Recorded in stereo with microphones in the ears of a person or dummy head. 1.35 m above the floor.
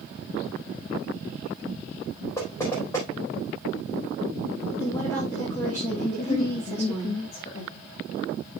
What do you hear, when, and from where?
2.4 s knocking: 15° left (ahead or behind), 3.5 m
4.8 s a woman speaking: 10° left (ahead or behind), 2.5 m
6.2 s a woman speaking: 30° left (ahead or behind), 2 m